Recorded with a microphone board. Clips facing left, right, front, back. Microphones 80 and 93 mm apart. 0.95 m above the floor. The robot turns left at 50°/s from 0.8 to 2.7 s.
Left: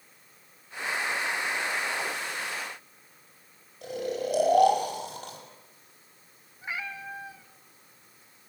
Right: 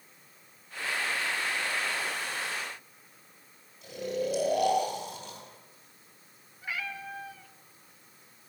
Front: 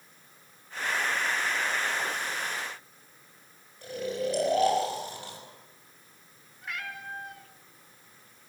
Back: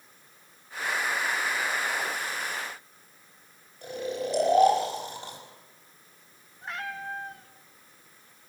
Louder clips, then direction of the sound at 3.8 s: Left 1 dB, front 1 dB; 110° left.